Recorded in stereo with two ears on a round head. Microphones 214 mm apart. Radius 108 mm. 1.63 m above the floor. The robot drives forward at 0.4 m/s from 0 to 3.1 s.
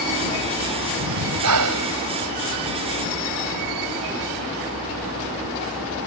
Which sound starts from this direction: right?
Breathing, at 1.0 s.